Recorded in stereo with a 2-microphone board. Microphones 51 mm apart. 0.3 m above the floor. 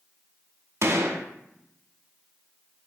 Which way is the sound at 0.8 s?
65° right (ahead or behind).